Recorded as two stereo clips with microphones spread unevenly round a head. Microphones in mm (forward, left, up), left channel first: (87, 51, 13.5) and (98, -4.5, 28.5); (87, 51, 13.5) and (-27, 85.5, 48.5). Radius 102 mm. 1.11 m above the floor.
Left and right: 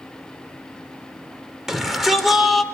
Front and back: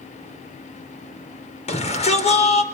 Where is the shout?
5° left, 4.5 m.